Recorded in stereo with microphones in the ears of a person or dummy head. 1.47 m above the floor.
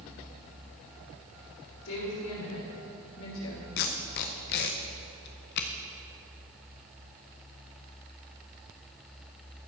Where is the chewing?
No chewing in this recording.